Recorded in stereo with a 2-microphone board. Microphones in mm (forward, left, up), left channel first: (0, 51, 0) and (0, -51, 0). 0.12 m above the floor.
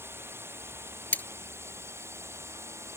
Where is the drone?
25° right (ahead or behind).